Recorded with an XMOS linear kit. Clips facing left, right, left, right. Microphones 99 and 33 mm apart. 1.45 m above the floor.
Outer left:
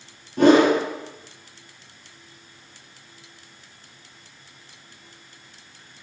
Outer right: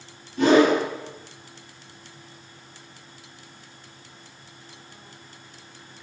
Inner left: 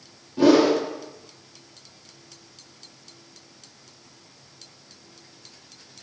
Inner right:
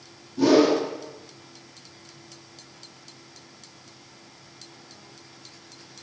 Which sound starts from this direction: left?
A whoosh, at 0.4 s.